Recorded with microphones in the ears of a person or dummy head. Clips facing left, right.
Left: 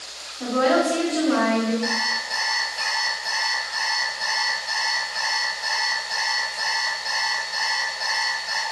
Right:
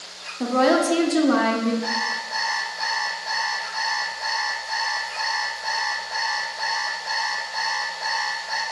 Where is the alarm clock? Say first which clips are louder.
Left 1 dB; 50° left (ahead or behind), 1.7 m.